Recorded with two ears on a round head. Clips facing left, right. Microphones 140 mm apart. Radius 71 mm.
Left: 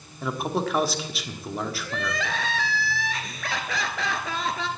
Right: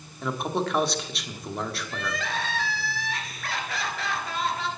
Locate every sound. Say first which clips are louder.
0.2 s a man speaking: left 1 dB; centre (ahead or behind), 1.4 m
1.9 s crying: left 2 dB; 60° left (ahead or behind), 1.5 m